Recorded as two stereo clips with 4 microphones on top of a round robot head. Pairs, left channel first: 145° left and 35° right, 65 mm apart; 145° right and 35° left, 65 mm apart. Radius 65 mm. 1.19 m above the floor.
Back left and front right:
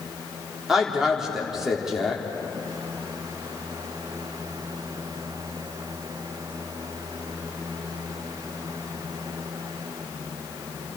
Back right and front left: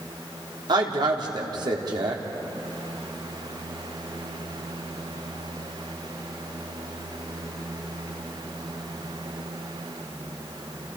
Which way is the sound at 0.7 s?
50° left.